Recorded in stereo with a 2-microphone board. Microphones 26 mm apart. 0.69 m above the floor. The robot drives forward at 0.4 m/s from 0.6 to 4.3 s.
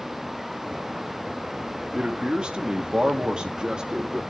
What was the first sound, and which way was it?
A man speaking, 30° right (ahead or behind).